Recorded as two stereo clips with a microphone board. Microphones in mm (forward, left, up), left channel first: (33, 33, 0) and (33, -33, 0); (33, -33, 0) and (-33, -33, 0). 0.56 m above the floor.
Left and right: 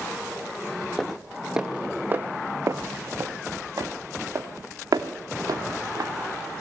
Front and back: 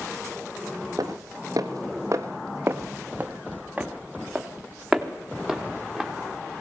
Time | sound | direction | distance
1.0 | footsteps | 170° left | 1.3 m